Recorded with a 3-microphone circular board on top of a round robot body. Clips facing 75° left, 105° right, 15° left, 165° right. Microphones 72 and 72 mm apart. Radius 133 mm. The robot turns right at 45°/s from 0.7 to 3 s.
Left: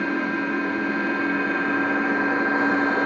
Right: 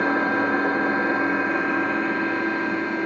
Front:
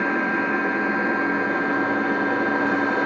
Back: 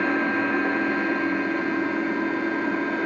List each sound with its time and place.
0.0 s an engine running: 65° right, 2.0 m; by 3.1 s 40° left, 2.0 m